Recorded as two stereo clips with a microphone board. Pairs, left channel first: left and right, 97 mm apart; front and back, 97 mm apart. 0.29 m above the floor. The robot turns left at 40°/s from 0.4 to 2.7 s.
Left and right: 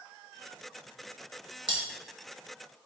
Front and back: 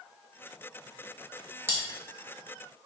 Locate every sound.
1.7 s cutlery clinking: 115° right, 1.1 m; by 1.8 s 125° right, 1.1 m